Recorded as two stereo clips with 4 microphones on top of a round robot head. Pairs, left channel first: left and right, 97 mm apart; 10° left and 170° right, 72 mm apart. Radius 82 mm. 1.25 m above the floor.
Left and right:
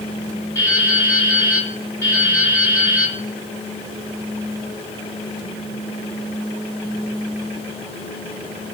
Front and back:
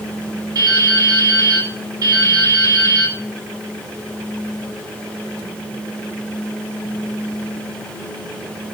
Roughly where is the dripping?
Behind left.